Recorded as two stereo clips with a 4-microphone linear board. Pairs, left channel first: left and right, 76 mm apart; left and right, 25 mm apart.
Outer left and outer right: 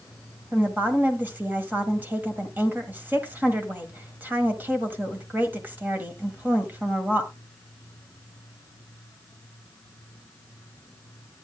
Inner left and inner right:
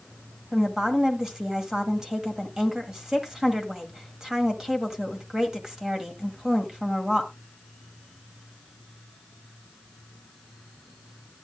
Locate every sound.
0.5 s a woman speaking: 25° right (ahead or behind), 1.7 m